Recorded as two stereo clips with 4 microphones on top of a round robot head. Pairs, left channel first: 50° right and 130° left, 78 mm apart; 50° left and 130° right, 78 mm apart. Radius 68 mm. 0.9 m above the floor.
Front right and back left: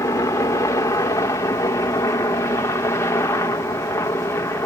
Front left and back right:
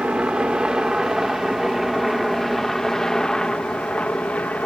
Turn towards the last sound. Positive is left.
turn(degrees=-15)